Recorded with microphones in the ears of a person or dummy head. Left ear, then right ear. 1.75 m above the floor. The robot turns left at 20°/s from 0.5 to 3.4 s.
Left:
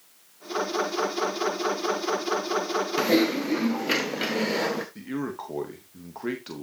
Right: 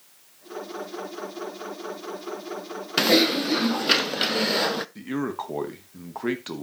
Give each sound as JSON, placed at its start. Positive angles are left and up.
{"t": 3.0, "sound": "typing on a keyboard", "side_deg": -30, "distance_m": 0.6}
{"t": 5.0, "sound": "a man speaking", "side_deg": -20, "distance_m": 1.1}